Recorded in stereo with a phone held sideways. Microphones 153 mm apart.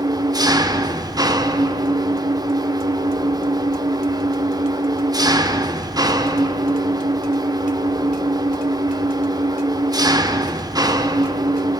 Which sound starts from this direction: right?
An engine running, at 0.0 s.